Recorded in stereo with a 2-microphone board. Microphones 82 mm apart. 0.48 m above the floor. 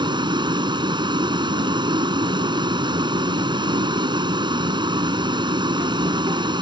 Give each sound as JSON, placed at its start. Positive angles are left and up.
{"t": 0.0, "sound": "a vehicle", "side_deg": -70}